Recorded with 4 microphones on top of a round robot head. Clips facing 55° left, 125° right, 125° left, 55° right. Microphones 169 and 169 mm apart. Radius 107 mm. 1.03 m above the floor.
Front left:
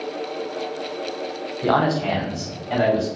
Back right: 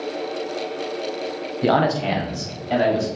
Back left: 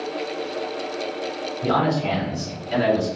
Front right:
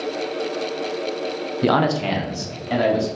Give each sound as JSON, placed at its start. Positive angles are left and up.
{"t": 1.6, "sound": "a man speaking", "azimuth_deg": -60, "distance_m": 0.5}